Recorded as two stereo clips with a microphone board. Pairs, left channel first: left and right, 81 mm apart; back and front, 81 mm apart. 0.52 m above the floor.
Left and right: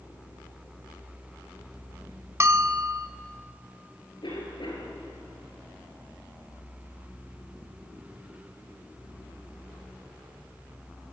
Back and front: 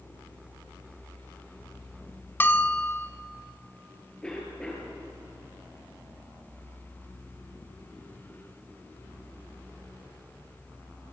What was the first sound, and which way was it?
A bell, 125° right.